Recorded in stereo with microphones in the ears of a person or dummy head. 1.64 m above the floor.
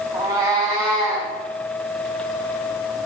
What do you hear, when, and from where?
0.1 s a cat meowing: 20° right (ahead or behind), 2 m; by 1.3 s 25° right (ahead or behind), 3 m